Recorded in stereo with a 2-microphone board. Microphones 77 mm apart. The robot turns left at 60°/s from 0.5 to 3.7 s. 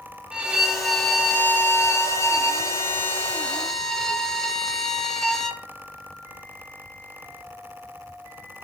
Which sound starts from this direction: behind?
A violin, at 0.3 s.